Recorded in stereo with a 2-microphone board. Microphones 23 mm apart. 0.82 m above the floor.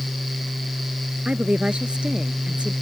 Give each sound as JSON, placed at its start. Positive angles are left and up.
{"t": 1.2, "sound": "a woman speaking", "side_deg": -50}